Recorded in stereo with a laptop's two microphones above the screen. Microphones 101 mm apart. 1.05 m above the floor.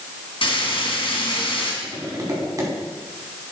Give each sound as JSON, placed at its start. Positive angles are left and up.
{"t": 0.4, "sound": "frying", "side_deg": 60, "distance_m": 2.5}
{"t": 1.8, "sound": "tapping", "side_deg": -35, "distance_m": 4.5}